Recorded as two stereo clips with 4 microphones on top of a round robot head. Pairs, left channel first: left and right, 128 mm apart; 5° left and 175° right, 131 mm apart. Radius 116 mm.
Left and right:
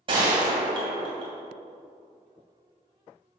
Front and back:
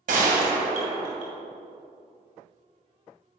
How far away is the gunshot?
About 2.5 m.